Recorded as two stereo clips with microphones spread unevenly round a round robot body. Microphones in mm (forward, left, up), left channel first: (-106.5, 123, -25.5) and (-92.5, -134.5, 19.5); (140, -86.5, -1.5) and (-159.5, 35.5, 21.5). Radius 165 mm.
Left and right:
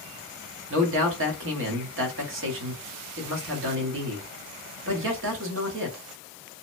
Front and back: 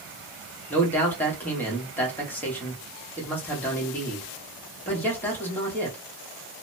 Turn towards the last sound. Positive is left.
turn(degrees=-100)